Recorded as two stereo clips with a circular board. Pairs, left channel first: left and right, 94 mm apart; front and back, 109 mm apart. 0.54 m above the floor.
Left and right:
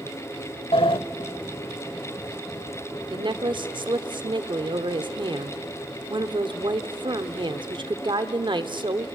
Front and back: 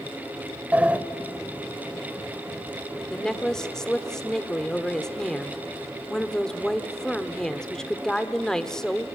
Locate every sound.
0.7 s a sliding door: 105° left, 0.8 m
3.1 s a woman speaking: 85° right, 1.1 m